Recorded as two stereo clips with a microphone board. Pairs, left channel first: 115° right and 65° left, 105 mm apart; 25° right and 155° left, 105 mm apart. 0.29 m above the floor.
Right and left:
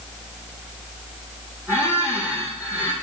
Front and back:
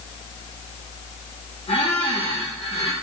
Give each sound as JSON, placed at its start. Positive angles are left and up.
{"t": 1.7, "sound": "a squeak", "azimuth_deg": -5, "distance_m": 3.5}